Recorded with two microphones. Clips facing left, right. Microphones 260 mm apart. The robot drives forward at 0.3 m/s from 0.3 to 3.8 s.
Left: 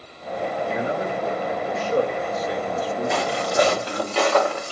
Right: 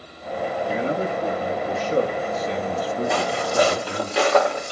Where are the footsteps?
Centre (ahead or behind), 2.5 m; by 4.7 s 20° right (ahead or behind), 2.5 m.